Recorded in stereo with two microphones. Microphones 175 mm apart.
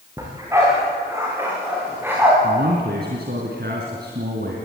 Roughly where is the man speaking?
Right.